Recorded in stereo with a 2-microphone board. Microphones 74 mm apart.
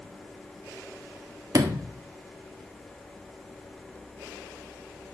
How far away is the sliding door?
About 1.3 m.